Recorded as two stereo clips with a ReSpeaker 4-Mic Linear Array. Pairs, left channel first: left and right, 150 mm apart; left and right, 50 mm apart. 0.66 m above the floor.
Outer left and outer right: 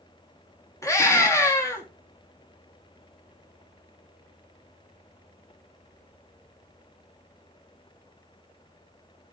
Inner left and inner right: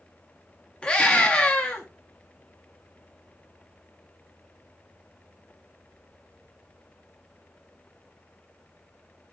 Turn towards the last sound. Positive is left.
turn(degrees=20)  # may be behind; listen again after turning